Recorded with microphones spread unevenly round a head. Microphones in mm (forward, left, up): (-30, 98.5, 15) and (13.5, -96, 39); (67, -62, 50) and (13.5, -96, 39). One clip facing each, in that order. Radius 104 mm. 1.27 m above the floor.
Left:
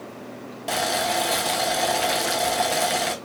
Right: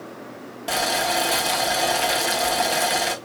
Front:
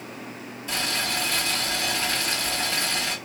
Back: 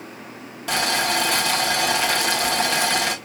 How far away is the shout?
I don't hear a shout.